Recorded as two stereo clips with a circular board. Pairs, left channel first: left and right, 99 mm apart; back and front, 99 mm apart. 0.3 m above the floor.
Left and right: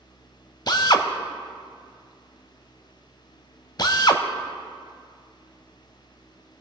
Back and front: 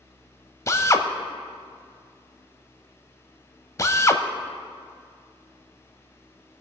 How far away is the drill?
About 0.6 m.